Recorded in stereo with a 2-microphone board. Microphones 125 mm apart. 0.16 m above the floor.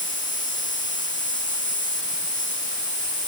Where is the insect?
85° left.